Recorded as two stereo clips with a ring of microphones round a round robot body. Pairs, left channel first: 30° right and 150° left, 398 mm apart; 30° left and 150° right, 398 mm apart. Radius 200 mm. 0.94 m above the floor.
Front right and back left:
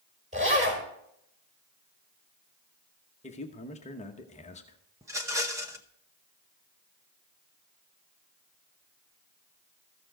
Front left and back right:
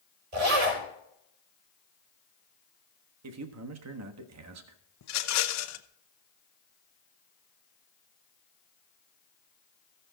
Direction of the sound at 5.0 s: 70° left.